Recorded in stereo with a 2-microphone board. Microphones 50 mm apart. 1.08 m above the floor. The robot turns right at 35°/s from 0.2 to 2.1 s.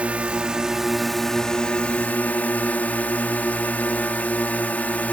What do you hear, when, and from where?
0.0 s a drone: 30° right; by 5.1 s 35° left